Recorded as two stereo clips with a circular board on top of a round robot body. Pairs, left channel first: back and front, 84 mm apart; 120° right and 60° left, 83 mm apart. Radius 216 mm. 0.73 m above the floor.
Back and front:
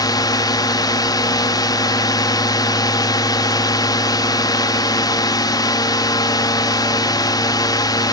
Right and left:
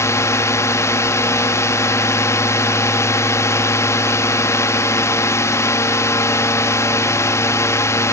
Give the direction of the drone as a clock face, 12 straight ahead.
5 o'clock.